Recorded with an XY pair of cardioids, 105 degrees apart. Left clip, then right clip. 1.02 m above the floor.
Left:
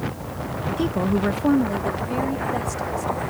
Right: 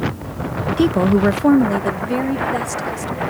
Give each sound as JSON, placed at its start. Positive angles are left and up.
{"t": 0.8, "sound": "a woman speaking", "azimuth_deg": -55}